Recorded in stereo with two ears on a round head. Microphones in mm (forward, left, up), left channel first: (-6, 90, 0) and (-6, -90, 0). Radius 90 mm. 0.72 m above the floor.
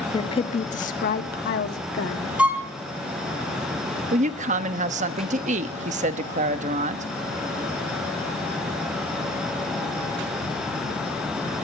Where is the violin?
5° right (ahead or behind), 2.5 m.